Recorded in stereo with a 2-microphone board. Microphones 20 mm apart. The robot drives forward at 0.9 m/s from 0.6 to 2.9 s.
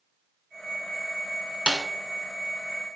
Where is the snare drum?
45° right (ahead or behind), 0.8 m; by 1.9 s 55° right (ahead or behind), 0.7 m.